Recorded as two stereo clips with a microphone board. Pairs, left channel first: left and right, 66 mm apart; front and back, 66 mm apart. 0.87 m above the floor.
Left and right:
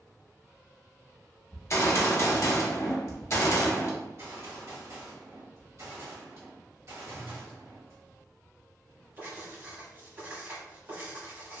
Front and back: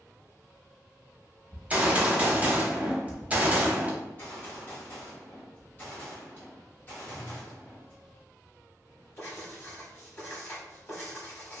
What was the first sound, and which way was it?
A gunshot, 120° left.